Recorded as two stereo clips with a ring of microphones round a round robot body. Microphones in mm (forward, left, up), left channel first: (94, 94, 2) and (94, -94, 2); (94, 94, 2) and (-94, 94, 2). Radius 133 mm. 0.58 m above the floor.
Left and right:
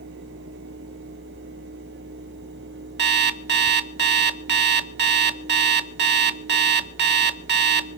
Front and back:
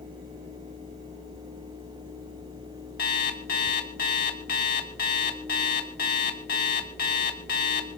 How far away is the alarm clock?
About 1.2 m.